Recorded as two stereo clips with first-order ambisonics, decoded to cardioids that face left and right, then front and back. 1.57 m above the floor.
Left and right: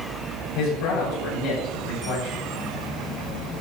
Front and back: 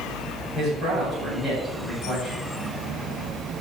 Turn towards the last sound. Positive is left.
turn(degrees=70)